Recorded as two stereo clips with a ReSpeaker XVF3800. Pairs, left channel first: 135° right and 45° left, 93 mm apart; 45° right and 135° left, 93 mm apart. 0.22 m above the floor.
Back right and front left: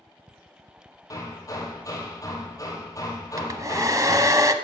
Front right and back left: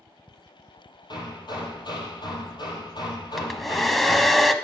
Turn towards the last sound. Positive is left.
turn(degrees=45)